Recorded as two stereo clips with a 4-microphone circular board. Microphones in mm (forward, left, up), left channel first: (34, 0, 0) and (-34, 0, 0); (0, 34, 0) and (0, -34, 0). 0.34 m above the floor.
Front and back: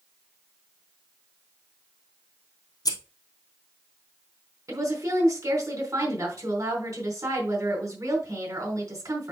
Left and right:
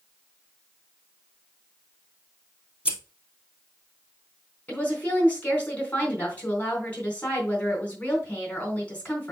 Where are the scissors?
15° right, 1.8 m.